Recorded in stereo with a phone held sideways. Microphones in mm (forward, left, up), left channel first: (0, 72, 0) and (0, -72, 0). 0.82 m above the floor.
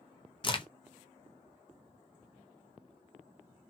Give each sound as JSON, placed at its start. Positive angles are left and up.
{"t": 0.4, "sound": "a crack", "side_deg": 35, "distance_m": 0.5}